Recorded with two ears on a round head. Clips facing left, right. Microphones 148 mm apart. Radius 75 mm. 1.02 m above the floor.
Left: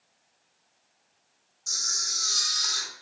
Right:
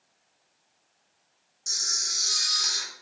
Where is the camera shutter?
70° right (ahead or behind), 1.9 m.